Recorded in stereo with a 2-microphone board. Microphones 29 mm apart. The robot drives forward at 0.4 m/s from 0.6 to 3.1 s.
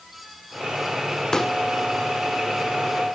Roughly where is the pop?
Left.